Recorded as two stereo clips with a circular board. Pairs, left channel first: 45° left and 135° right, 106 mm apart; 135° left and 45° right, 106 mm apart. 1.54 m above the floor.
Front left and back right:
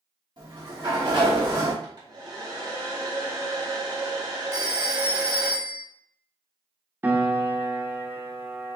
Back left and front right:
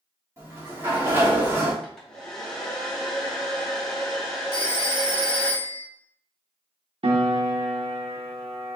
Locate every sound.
0.4 s a sliding door: 105° right, 1.6 m
1.8 s a hair dryer: 140° right, 1.8 m
4.5 s a phone ringing: 80° right, 1.5 m
7.0 s a piano: 65° right, 0.9 m